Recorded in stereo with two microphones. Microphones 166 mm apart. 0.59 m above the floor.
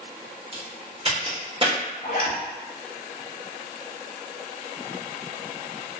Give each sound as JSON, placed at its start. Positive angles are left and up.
{"t": 0.5, "sound": "a crack", "side_deg": -35, "distance_m": 0.9}
{"t": 2.0, "sound": "a zipper", "side_deg": 55, "distance_m": 0.6}